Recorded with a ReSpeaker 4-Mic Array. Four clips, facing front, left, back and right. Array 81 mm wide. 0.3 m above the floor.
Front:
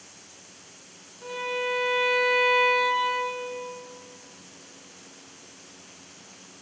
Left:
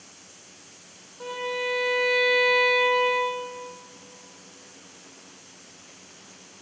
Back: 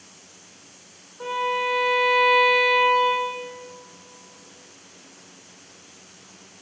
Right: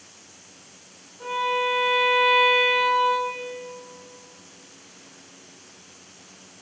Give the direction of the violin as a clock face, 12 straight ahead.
6 o'clock.